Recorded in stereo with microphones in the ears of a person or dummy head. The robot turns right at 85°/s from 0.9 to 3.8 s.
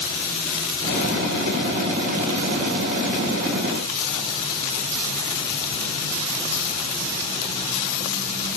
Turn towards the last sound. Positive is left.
No sound to turn to.